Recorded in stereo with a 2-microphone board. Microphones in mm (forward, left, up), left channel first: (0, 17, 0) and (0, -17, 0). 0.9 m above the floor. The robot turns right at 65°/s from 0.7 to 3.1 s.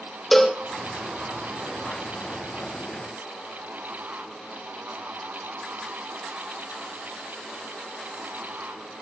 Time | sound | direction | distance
0.3 | a cowbell | 10° left (ahead or behind) | 0.8 m